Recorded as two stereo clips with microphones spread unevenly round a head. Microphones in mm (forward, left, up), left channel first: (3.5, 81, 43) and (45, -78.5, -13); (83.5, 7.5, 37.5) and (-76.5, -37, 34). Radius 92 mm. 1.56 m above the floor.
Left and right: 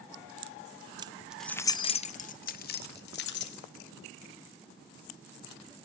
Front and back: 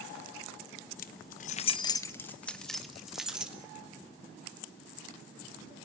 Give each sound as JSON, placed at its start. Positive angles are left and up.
{"t": 1.0, "sound": "keys jangling", "azimuth_deg": 0, "distance_m": 0.9}